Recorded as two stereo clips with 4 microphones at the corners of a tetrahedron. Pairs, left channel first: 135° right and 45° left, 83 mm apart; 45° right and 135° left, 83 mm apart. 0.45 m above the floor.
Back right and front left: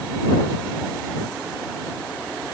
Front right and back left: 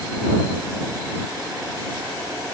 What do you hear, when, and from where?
Only background noise.